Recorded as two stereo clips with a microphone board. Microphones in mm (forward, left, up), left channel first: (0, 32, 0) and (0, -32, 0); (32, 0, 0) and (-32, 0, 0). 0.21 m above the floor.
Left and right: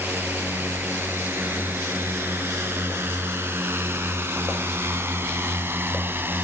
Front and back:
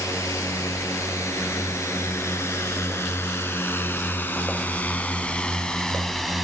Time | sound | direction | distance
0.0 | a drone | 35° right | ?